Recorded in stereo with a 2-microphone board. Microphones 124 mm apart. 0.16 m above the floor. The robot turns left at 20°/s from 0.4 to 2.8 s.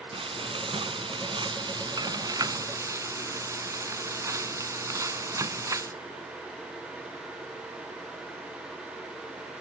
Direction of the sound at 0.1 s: 95° right.